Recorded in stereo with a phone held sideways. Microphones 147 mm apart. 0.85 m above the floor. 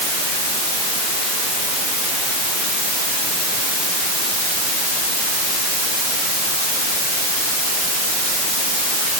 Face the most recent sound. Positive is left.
No sound to turn to.